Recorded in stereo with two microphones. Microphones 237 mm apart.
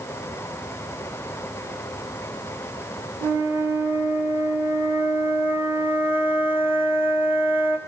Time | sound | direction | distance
3.2 | a flute | 10° right (ahead or behind) | 2 m